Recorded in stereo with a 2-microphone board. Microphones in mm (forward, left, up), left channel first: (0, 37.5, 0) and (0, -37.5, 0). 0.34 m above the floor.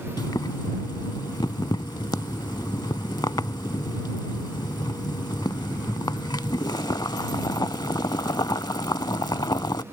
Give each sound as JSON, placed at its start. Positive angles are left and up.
{"t": 0.2, "sound": "boiling", "side_deg": 75}